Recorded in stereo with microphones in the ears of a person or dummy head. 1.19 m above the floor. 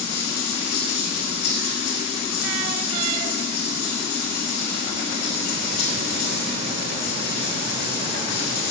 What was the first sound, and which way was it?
Running water, 55° left (ahead or behind).